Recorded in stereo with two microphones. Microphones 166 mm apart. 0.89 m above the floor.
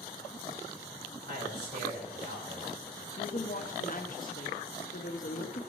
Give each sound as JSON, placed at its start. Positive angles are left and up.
{"t": 1.2, "sound": "a man speaking", "side_deg": -70, "distance_m": 4.0}
{"t": 3.2, "sound": "a woman speaking", "side_deg": 55, "distance_m": 1.2}